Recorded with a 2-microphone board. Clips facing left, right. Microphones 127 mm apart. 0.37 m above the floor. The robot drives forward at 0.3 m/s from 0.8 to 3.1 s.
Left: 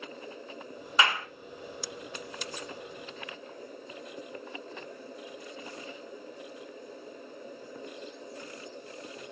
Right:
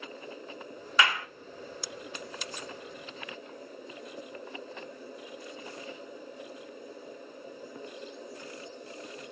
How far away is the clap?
About 0.6 m.